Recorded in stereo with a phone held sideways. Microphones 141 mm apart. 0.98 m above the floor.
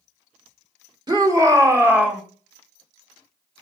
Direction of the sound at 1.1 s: 30° right (ahead or behind).